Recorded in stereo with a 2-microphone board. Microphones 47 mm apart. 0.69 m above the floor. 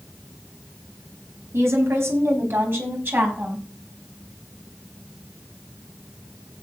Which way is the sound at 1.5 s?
70° right (ahead or behind).